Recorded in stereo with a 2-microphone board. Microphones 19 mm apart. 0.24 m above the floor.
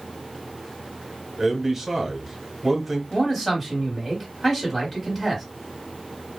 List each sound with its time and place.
1.4 s a man speaking: 15° right (ahead or behind), 1.0 m
3.1 s a man speaking: 10° left (ahead or behind), 1.5 m